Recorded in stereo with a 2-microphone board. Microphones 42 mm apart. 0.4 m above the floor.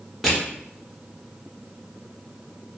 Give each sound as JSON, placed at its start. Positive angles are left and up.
{"t": 0.2, "sound": "crushing", "side_deg": 0, "distance_m": 1.3}